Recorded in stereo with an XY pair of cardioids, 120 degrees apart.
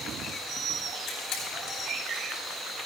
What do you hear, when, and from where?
1.1 s a camera shutter: 70° left, 10 m